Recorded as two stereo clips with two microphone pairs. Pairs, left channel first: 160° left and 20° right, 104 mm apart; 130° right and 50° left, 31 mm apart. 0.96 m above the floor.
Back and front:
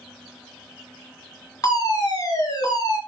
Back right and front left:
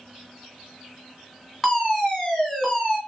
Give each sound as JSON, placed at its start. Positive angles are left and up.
{"t": 1.6, "sound": "a fire alarm", "azimuth_deg": 155, "distance_m": 1.6}